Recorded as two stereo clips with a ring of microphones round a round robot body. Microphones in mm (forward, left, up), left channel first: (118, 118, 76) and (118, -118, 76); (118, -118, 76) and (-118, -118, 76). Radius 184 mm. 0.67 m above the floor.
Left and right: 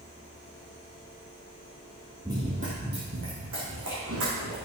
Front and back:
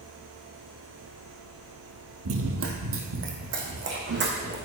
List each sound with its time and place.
2.2 s running footsteps: 170° right, 1.3 m; by 4.5 s 135° right, 3.5 m